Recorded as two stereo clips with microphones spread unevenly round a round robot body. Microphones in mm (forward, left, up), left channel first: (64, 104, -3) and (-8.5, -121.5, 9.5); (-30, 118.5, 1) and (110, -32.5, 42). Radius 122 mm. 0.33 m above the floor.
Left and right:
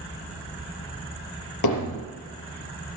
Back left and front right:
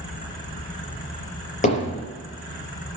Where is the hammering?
80° left, 5 m.